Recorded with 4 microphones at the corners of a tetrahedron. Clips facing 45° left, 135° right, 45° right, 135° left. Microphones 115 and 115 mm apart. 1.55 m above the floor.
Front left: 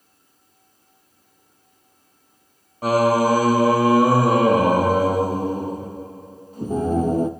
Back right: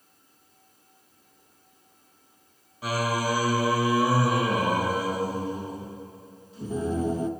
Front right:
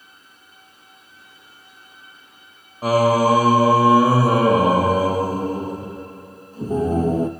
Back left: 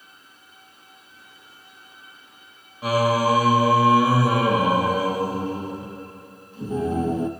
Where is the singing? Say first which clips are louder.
Front left 10 dB, front right 4 dB; 5° left, 0.6 m.